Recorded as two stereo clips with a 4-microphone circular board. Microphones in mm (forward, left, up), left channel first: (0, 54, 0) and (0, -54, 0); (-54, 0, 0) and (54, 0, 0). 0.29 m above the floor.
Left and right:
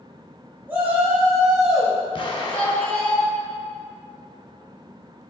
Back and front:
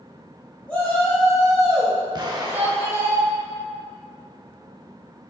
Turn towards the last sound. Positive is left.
turn(degrees=50)